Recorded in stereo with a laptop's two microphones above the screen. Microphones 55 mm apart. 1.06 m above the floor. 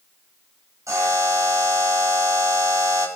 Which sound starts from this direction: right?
A buzzer, at 0.9 s.